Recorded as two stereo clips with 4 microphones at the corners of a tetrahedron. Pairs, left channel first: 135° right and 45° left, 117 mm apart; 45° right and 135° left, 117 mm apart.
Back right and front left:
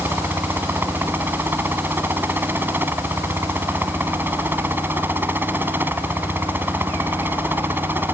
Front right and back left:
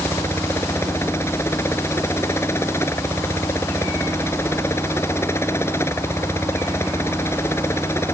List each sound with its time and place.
0.0 s a helicopter: 5° right